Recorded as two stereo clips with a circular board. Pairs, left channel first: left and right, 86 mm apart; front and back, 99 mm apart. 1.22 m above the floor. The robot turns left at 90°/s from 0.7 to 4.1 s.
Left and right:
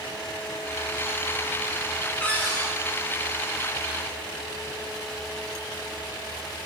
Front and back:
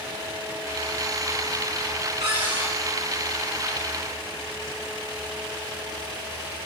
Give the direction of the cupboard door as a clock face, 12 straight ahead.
6 o'clock.